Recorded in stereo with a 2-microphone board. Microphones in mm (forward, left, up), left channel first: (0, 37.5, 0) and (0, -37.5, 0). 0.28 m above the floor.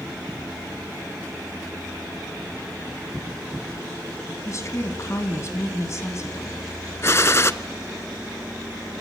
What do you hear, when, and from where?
4.5 s a woman speaking: 40° left (ahead or behind), 2 m
7.0 s a gunshot: 40° left (ahead or behind), 0.5 m